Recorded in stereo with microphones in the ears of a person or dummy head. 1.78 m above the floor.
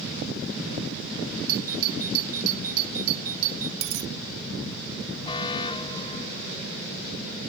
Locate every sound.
1.5 s a doorbell: 50° right (ahead or behind)
3.8 s a dropped coin: 75° right (ahead or behind)
5.2 s an alarm: 25° left (ahead or behind)